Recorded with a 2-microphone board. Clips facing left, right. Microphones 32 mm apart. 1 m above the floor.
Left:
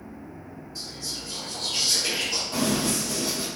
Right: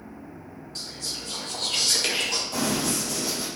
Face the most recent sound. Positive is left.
turn(degrees=20)  # may be behind; listen again after turning